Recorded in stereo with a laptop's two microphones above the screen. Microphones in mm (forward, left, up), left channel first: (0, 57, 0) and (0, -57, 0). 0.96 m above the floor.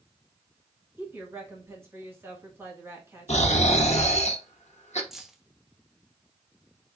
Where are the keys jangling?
5° right (ahead or behind), 0.7 m.